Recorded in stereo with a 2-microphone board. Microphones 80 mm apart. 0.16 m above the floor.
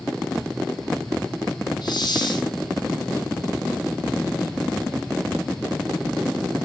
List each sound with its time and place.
1.8 s a hiss: 65° left (ahead or behind), 1.2 m